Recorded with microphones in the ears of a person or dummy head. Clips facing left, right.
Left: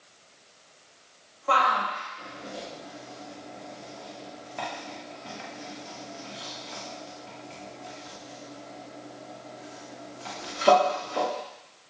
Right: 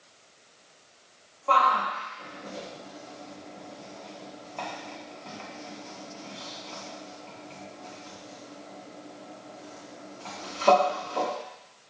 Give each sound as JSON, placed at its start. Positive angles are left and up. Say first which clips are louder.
{"t": 1.5, "sound": "a shout", "louder": "right 1 dB", "side_deg": 10, "distance_m": 1.3}